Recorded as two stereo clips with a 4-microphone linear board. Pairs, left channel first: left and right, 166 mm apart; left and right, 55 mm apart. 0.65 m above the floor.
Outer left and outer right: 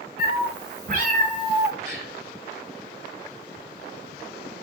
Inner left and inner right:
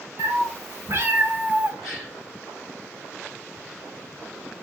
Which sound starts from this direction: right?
A cat meowing, at 0.2 s.